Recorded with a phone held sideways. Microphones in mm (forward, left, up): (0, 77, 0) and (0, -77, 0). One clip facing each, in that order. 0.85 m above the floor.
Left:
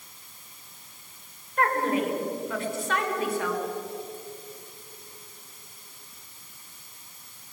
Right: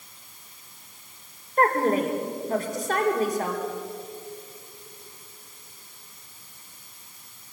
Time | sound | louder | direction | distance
1.6 | a woman speaking | right 4 dB | 45° right (ahead or behind) | 3.5 m